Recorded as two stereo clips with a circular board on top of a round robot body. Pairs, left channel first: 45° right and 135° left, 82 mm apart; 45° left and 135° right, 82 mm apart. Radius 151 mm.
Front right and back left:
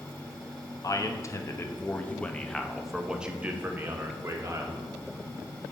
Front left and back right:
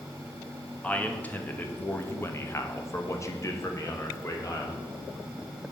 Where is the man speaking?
25° right, 1.5 m; by 4.8 s 90° left, 1.7 m.